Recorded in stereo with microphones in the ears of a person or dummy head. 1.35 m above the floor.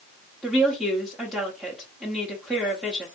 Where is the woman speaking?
Centre (ahead or behind), 0.7 m.